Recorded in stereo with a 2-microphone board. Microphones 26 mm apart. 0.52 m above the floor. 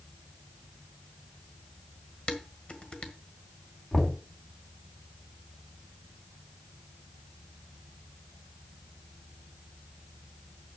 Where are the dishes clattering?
45° left (ahead or behind), 1.6 m.